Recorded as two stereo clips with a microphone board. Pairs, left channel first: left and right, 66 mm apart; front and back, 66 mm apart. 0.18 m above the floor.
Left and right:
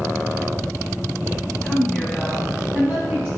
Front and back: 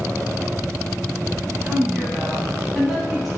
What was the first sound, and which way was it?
A woman speaking, 135° left.